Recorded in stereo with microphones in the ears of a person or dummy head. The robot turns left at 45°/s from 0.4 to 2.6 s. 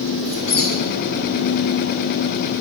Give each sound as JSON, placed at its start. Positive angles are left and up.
{"t": 0.2, "sound": "a squeak", "side_deg": 5, "distance_m": 1.7}